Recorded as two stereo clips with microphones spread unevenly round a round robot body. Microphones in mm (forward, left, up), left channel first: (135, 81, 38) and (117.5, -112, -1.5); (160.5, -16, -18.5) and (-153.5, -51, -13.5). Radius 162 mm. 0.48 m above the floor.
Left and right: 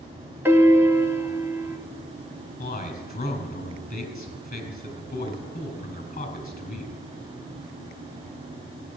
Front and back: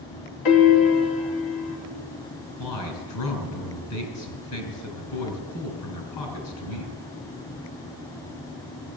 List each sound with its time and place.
0.5 s a piano: 15° right, 1.8 m
2.6 s a man speaking: 40° left, 5 m